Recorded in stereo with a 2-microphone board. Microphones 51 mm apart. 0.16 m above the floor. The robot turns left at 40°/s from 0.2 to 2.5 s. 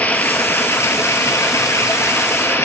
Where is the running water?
145° left, 0.8 m; by 2.7 s 55° left, 0.8 m.